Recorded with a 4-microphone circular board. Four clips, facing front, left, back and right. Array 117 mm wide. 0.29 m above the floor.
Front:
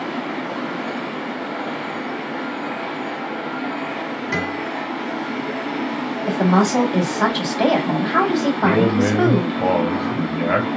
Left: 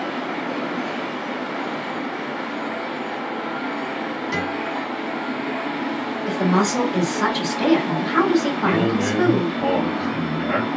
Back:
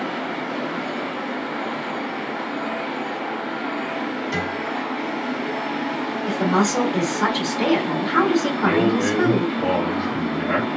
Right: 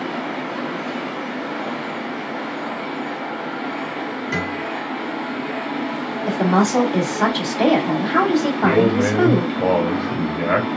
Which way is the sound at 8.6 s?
55° right.